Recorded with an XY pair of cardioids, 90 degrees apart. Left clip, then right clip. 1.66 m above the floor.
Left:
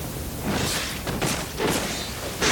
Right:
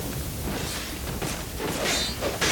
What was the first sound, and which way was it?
Only background noise.